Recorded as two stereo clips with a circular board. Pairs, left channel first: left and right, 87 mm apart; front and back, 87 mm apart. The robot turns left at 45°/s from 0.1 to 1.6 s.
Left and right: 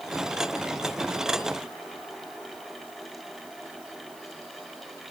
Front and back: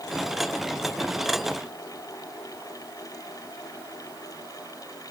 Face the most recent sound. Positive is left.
No sound to turn to.